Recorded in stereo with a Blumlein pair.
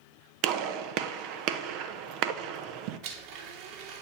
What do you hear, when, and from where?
0.4 s a gunshot: 40° right, 1.2 m
3.0 s a blender: 45° right, 2.5 m